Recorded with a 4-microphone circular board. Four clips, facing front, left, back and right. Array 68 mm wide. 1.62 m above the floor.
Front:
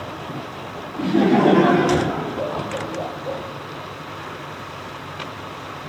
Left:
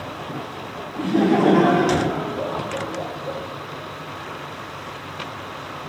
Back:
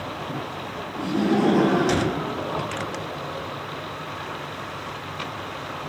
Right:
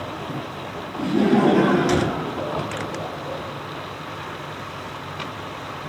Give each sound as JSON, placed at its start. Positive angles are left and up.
{"t": 1.0, "sound": "laughter", "azimuth_deg": 45, "distance_m": 5.0}